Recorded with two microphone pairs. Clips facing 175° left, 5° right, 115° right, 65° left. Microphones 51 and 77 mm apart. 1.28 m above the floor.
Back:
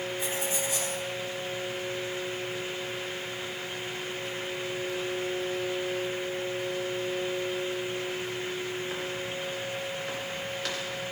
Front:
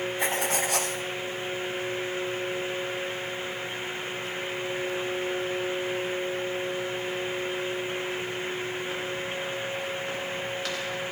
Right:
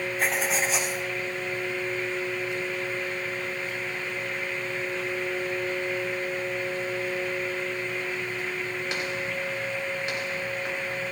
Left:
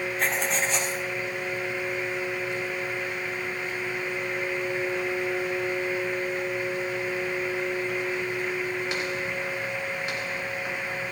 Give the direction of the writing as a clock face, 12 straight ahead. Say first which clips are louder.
Front 5 dB, right 1 dB; 1 o'clock.